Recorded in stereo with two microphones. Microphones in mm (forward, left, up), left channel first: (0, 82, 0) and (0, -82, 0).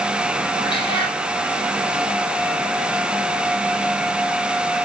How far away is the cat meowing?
About 4 m.